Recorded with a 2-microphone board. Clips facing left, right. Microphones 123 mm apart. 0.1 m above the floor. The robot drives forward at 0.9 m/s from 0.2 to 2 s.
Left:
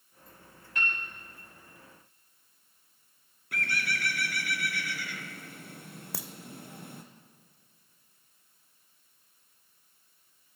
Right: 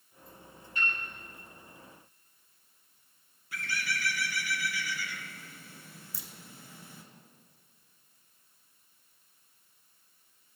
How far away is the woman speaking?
No woman speaking in this recording.